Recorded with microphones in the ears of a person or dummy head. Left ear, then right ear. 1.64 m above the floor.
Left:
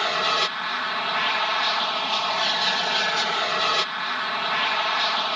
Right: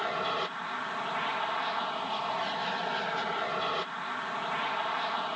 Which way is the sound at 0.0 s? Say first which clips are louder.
Left 9 dB; 65° left (ahead or behind).